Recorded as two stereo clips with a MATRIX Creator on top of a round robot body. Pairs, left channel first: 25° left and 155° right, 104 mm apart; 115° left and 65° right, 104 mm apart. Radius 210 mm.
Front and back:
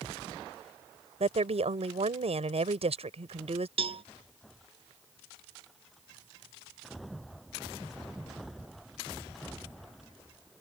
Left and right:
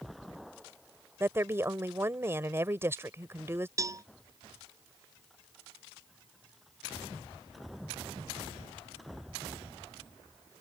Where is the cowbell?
125° right.